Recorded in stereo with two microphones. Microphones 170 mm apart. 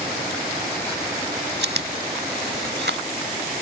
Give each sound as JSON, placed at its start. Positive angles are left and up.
{"t": 1.6, "sound": "chewing", "side_deg": -85}